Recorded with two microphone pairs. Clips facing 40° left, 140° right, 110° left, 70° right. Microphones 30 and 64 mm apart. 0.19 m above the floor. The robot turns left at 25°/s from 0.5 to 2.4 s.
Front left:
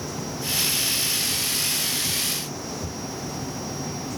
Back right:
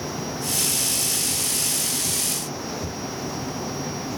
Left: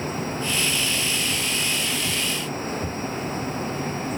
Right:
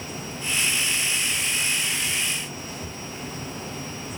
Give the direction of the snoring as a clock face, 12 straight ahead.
I don't hear snoring.